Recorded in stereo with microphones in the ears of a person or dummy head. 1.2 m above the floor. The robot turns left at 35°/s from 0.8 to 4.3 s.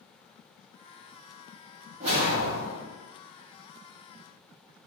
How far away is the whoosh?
About 0.9 m.